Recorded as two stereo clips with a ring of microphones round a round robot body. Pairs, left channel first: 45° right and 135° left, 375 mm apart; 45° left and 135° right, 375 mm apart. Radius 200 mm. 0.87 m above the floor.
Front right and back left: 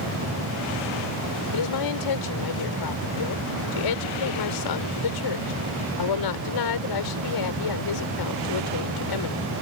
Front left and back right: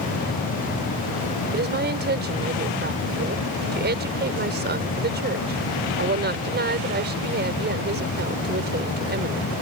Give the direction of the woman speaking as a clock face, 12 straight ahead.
2 o'clock.